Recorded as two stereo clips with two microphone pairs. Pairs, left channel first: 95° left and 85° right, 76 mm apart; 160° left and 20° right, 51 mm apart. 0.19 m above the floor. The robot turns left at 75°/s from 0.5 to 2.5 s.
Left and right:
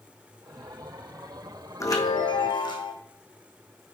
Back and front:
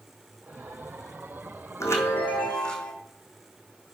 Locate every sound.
1.8 s a chime: 135° left, 1.7 m; by 2.9 s 85° left, 1.7 m